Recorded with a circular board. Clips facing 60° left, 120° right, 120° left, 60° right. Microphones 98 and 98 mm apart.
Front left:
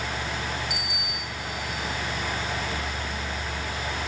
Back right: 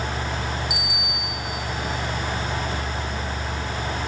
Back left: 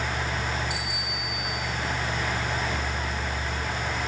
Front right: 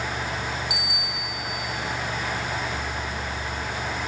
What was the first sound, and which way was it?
A bicycle bell, 35° right.